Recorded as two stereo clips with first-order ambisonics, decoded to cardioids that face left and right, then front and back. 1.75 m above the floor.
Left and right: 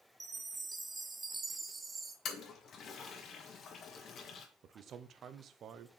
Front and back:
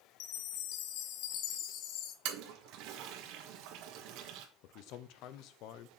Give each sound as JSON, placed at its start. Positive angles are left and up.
{"t": 0.2, "sound": "a chime", "azimuth_deg": -15, "distance_m": 0.9}
{"t": 2.2, "sound": "a toilet flushing", "azimuth_deg": 150, "distance_m": 1.3}
{"t": 4.6, "sound": "a man speaking", "azimuth_deg": -30, "distance_m": 0.8}